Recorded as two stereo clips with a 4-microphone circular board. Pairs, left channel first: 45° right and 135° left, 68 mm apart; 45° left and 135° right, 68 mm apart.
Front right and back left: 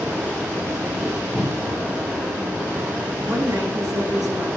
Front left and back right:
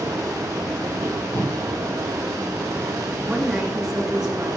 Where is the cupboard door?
15° left, 3.5 m.